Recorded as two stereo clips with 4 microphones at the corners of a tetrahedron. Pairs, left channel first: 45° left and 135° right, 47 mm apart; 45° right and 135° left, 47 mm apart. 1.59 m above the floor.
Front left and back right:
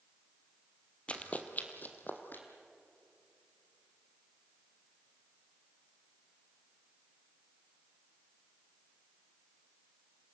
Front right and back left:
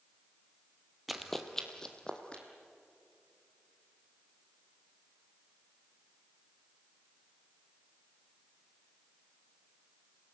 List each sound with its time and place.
1.1 s running footsteps: 50° left, 1.7 m; by 2.4 s 20° left, 3 m